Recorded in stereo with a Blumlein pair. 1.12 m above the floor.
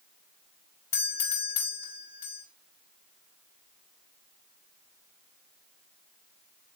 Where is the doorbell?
60° left, 3.5 m.